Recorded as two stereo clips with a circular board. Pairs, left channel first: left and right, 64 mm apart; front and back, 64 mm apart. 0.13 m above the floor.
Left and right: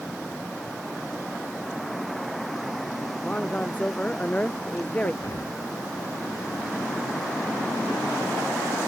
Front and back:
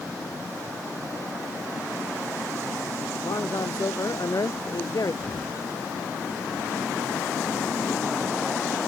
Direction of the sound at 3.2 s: 20° left.